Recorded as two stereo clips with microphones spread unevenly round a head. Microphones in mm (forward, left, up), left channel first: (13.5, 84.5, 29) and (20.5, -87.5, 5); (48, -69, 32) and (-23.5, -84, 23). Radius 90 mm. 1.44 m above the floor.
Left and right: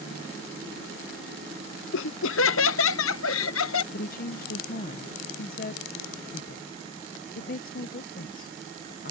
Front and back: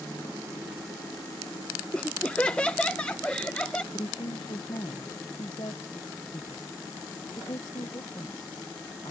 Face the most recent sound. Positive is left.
turn(degrees=60)